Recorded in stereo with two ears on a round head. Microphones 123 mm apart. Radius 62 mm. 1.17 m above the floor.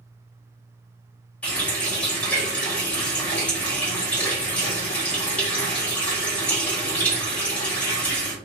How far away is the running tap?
About 1.4 m.